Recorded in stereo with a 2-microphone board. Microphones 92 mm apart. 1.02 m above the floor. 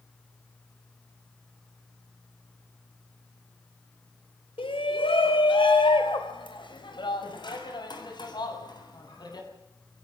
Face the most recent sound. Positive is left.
turn(degrees=50)  # may be behind; listen again after turning